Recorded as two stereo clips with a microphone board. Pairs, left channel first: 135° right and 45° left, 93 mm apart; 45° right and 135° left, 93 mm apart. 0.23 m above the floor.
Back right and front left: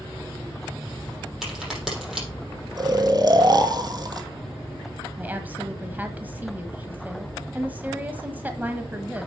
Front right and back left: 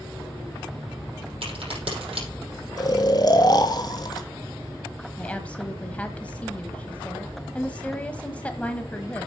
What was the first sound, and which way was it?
A crack, 130° left.